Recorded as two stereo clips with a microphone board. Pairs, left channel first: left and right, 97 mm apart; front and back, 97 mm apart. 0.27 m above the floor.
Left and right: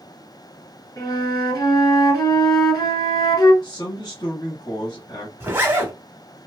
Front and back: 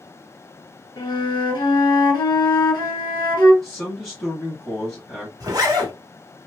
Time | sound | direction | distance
1.0 | a flute | 40° left | 1.4 m
3.6 | a man speaking | 90° left | 1.3 m
5.4 | a zipper | 150° right | 1.4 m